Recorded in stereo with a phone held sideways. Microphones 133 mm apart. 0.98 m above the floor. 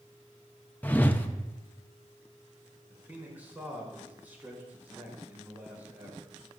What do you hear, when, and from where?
0.8 s a whoosh: 15° left (ahead or behind), 0.7 m
2.9 s a man speaking: 15° right (ahead or behind), 3.5 m